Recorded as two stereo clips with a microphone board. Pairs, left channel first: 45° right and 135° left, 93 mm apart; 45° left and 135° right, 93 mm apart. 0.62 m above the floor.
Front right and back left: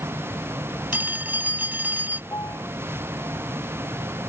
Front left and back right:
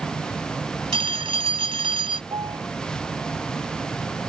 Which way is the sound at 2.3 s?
95° right.